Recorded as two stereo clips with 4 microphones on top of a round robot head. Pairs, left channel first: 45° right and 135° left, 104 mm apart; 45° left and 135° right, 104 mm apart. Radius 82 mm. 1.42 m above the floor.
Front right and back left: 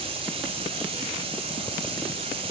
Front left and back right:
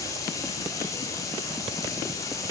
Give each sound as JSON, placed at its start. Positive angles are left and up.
{"t": 0.0, "sound": "running water", "azimuth_deg": 105, "distance_m": 1.2}